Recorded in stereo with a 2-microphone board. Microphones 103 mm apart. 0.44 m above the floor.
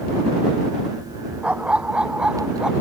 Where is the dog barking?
10° right (ahead or behind); by 2.7 s 5° right (ahead or behind).